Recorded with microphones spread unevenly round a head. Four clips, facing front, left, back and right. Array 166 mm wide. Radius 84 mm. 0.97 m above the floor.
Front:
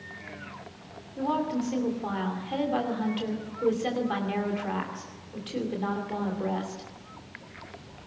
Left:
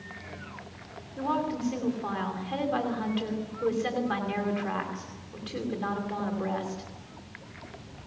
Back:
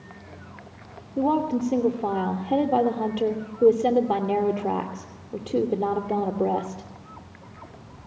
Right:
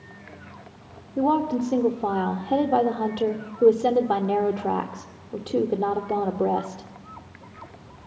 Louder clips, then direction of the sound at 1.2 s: Right 7 dB, back 5 dB; 135° right.